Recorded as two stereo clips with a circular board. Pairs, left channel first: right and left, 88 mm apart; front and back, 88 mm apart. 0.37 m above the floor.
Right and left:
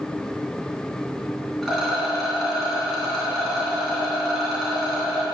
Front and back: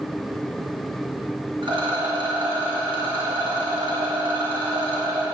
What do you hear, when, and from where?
1.6 s a rattle: 175° right, 3 m